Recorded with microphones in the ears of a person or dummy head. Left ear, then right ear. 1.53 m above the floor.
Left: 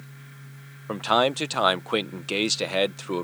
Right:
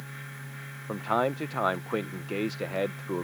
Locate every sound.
0.9 s a man speaking: 80° left